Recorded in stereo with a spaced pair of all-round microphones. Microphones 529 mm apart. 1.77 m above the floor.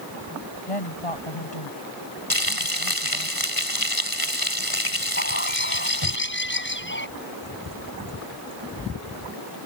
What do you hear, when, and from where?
0.7 s a woman speaking: 90° left
2.3 s frying: 40° left (ahead or behind)
5.2 s a bird: 20° left (ahead or behind)